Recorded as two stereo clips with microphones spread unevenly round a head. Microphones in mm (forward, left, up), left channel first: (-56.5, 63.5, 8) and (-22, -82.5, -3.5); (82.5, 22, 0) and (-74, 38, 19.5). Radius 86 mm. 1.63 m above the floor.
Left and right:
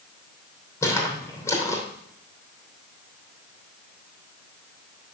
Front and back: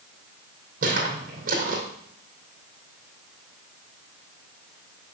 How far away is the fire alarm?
No fire alarm in this recording.